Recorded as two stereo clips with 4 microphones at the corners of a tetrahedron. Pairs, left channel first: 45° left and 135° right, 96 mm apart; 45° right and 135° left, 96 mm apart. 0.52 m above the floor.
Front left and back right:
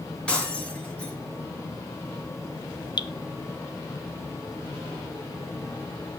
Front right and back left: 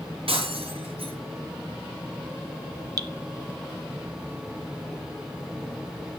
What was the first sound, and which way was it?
Breaking glass, 125° left.